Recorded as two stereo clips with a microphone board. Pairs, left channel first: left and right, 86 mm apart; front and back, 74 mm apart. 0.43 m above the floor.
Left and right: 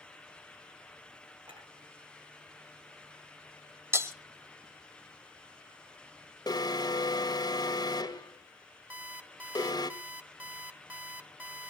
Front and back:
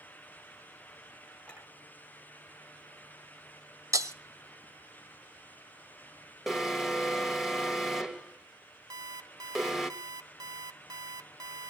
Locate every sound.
1.4 s a clink: 75° right, 8.5 m
3.9 s breaking glass: 145° right, 1.2 m
6.5 s an alarm: 95° left, 1.6 m
8.9 s an alarm clock: 160° right, 1.2 m